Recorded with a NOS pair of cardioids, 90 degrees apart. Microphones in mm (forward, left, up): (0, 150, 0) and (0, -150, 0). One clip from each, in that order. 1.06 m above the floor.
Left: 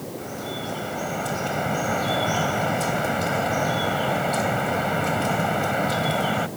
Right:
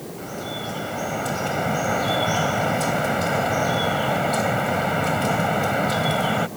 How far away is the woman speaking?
I don't hear a woman speaking.